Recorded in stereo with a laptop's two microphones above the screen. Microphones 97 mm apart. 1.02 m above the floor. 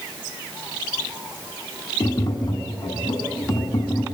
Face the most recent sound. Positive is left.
turn(degrees=45)  # may be behind; listen again after turning